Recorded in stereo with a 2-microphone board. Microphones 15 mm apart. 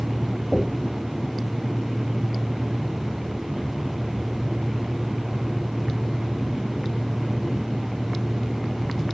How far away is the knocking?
About 3.5 m.